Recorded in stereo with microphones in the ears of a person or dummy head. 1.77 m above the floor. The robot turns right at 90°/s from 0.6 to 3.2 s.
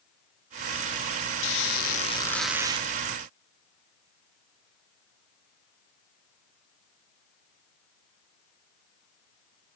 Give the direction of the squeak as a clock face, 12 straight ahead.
9 o'clock.